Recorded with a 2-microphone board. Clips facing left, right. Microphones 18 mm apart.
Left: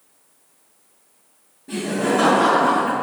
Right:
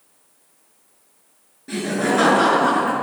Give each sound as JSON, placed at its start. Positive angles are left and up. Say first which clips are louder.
{"t": 1.7, "sound": "laughter", "louder": "even", "side_deg": -60, "distance_m": 1.9}